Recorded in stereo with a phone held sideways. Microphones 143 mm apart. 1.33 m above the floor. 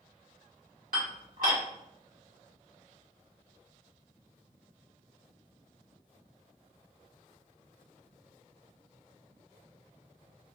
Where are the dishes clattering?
75° right (ahead or behind), 1.4 m.